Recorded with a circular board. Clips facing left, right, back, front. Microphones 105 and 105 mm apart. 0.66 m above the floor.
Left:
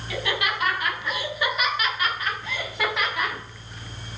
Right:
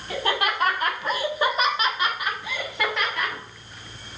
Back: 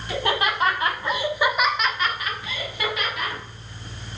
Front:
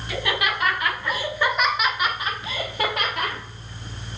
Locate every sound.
0.1 s laughter: 135° right, 2 m; by 3.4 s 15° left, 1.7 m